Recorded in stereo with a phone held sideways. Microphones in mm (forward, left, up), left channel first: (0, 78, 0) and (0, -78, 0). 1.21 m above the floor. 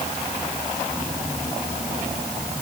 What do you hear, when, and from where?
Only background noise.